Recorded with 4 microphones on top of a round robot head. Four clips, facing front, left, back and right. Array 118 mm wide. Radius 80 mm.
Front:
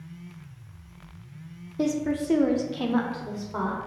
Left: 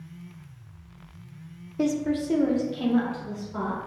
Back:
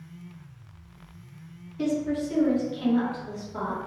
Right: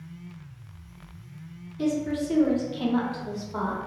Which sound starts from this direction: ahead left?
A woman speaking, at 1.8 s.